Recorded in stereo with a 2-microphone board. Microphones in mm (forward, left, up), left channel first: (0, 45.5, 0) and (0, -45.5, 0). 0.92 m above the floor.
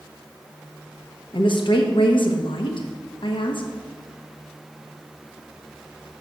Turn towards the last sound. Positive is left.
turn(degrees=65)  # may be behind; listen again after turning